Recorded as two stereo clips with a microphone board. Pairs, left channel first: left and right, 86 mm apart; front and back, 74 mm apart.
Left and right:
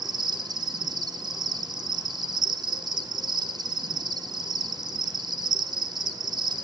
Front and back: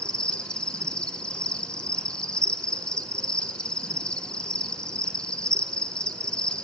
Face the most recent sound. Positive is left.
turn(degrees=-75)